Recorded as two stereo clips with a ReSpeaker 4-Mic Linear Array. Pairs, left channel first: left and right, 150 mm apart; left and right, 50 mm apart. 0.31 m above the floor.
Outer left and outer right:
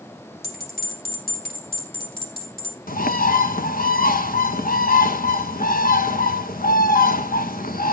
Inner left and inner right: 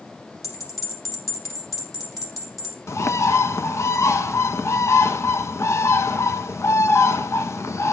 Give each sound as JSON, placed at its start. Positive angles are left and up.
{"t": 0.4, "sound": "a bell", "side_deg": 85, "distance_m": 4.5}
{"t": 2.9, "sound": "a bird", "side_deg": 75, "distance_m": 0.8}